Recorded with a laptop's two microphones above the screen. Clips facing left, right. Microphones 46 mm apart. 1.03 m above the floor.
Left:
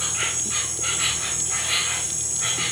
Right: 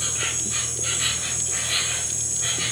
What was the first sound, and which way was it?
An insect, 65° left (ahead or behind).